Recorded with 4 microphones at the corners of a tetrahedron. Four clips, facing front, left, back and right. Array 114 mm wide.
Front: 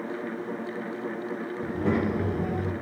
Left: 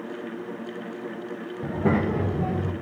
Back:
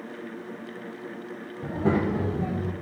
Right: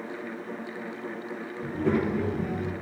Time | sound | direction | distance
1.6 | a child speaking | 115° left | 2.5 m